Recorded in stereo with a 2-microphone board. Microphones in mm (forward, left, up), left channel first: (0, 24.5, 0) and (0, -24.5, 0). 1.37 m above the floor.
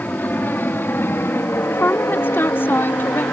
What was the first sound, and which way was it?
An aircraft, 40° left (ahead or behind).